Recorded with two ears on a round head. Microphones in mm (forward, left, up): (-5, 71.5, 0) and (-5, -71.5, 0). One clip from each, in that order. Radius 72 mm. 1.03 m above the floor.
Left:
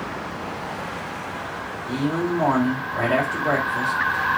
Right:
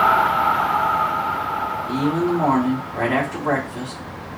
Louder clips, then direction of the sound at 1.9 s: Right 1 dB; 20° left (ahead or behind).